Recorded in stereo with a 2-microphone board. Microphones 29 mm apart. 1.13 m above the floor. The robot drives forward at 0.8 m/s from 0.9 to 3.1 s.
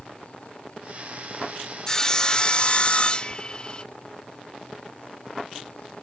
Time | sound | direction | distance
1.9 | sawing | 15° left (ahead or behind) | ?